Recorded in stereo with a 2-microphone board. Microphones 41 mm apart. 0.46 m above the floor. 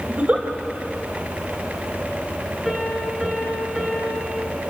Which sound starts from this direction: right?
A giggle, at 0.1 s.